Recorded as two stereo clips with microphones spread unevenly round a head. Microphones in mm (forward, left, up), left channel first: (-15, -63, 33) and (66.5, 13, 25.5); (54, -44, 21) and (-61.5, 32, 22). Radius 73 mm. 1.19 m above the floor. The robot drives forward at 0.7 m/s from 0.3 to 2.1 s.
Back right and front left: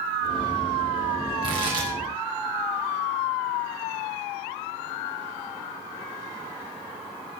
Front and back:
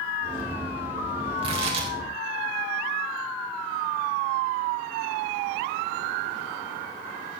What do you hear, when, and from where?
1.4 s tearing paper: 95° left, 3.5 m; by 1.9 s 100° left, 3.5 m